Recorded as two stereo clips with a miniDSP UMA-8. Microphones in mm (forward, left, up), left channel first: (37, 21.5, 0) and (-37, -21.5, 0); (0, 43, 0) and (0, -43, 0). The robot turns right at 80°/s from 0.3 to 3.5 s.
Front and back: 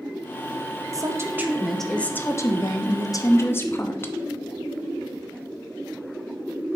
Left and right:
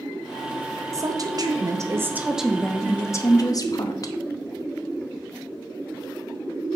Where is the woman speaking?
125° right, 0.9 m; by 4.1 s 80° left, 0.9 m.